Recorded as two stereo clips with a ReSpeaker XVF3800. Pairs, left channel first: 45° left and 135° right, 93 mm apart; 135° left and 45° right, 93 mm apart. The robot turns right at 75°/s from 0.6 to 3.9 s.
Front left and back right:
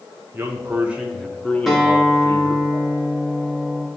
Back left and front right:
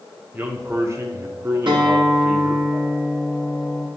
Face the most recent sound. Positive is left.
turn(degrees=120)